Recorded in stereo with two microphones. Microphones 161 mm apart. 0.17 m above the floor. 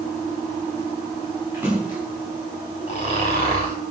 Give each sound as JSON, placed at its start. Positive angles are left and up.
{"t": 1.5, "sound": "a splash", "side_deg": -10, "distance_m": 6.5}
{"t": 2.9, "sound": "snoring", "side_deg": 40, "distance_m": 4.5}